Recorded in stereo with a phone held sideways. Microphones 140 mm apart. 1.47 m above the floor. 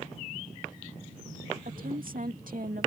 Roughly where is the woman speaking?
Right.